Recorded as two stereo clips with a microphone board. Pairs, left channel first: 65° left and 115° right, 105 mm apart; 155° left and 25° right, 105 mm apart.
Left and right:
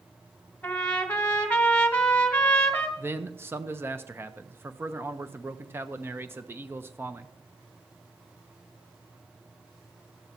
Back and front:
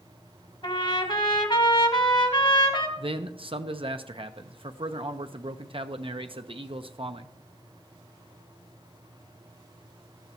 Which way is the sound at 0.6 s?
140° left.